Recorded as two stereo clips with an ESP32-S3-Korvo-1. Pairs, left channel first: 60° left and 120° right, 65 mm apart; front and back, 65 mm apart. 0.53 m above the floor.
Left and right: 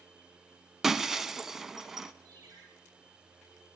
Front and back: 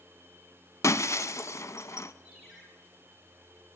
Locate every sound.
0.8 s breaking glass: 35° right, 0.7 m
2.2 s a ringtone: 95° right, 8 m